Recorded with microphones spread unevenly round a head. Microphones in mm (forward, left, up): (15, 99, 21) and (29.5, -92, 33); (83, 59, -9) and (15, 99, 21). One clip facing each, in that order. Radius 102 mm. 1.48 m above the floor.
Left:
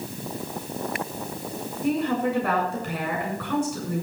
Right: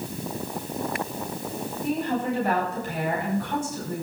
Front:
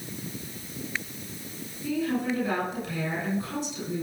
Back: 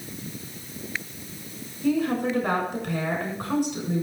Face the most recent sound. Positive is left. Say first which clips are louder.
# left 3 dB, back 4 dB
turn(degrees=135)